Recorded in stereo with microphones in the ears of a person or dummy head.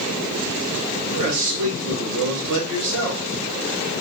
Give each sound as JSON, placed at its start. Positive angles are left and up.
{"t": 1.1, "sound": "a man speaking", "side_deg": -65, "distance_m": 1.8}